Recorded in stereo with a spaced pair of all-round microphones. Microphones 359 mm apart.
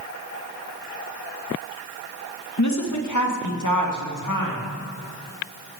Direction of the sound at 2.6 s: 50° left (ahead or behind).